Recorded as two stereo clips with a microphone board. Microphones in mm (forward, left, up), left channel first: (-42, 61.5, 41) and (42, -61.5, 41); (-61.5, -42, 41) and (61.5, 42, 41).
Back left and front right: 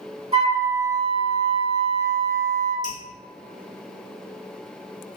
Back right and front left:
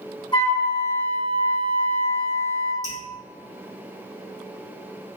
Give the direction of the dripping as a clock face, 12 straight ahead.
9 o'clock.